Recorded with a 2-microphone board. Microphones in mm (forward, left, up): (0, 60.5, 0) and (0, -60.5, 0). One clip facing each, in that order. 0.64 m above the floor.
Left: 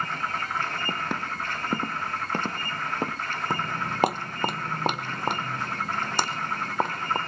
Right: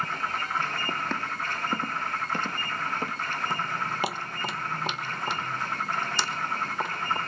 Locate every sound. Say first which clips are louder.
0.9 s footsteps: left 1 dB; 10° left (ahead or behind), 1.1 m; by 3.2 s 45° left (ahead or behind), 2 m
3.5 s footsteps: left 1 dB; 45° left (ahead or behind), 0.8 m